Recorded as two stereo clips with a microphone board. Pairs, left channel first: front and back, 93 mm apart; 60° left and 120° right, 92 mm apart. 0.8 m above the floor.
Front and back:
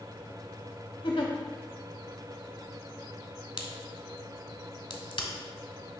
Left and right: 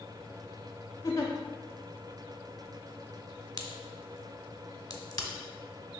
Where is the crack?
15° left, 1.0 m.